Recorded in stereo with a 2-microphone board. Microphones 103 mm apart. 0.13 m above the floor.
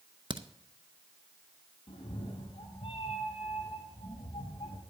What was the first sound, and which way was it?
A crack, 45° right (ahead or behind).